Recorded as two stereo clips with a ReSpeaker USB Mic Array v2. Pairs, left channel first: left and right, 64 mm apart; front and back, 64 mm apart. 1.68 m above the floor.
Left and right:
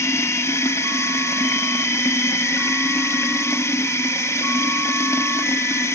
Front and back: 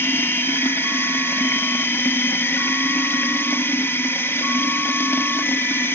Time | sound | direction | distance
0.0 | running water | 50° left | 1.7 m